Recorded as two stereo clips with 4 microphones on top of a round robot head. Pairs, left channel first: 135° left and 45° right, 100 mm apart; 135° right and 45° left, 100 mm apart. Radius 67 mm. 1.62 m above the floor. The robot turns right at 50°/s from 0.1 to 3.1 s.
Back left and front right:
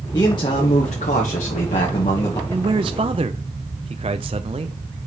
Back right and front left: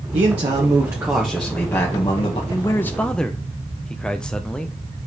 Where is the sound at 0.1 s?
70° left, 1.2 m; by 2.4 s 175° right, 1.2 m.